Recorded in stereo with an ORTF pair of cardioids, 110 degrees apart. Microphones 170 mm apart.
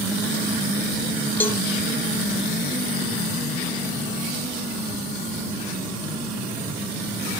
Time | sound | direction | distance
1.4 | a cowbell | 10° left | ?